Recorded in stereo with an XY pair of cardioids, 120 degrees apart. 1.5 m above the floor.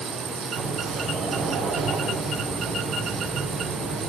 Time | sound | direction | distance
0.5 | a sliding door | 65° right | 9 m